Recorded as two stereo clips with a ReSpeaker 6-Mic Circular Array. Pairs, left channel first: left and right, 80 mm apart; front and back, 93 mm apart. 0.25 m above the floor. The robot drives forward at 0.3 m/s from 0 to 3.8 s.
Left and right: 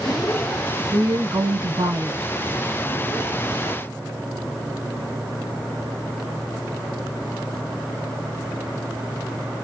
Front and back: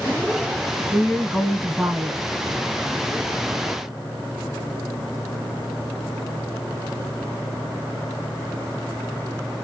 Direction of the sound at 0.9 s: 95° right.